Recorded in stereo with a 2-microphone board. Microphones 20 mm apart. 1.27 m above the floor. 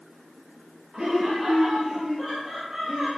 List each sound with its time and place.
0.9 s laughter: 35° right (ahead or behind), 1.9 m; by 3.2 s 45° right (ahead or behind), 5.5 m